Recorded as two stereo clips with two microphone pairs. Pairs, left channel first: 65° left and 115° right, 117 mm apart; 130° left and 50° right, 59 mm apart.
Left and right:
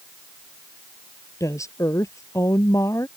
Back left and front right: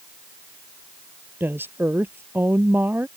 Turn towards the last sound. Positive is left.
turn(degrees=0)